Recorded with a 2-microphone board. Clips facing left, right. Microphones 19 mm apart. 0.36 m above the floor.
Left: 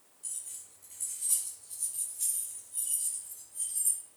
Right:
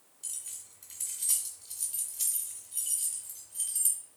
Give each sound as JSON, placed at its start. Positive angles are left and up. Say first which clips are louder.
{"t": 0.2, "sound": "keys jangling", "louder": "right 2 dB", "side_deg": -75, "distance_m": 2.0}